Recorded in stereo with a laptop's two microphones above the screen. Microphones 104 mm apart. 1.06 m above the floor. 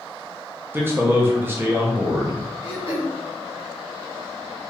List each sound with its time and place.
0.7 s a man speaking: 20° right (ahead or behind), 0.8 m
2.6 s throat clearing: 60° left (ahead or behind), 1.1 m